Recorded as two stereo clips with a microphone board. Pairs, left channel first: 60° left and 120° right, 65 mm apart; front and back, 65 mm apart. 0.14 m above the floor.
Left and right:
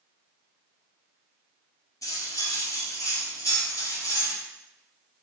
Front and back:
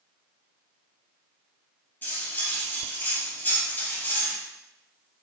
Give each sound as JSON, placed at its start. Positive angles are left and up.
{"t": 2.0, "sound": "cutlery clinking", "azimuth_deg": 55, "distance_m": 1.7}